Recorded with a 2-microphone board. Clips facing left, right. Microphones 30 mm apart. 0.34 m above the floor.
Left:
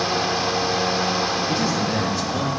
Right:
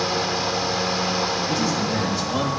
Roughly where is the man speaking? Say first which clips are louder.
Left 1 dB; left.